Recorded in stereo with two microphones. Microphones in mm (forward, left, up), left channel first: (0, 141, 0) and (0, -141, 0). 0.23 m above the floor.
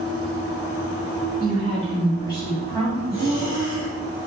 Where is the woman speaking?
30° left (ahead or behind), 1.5 m; by 3.0 s centre (ahead or behind), 1.3 m.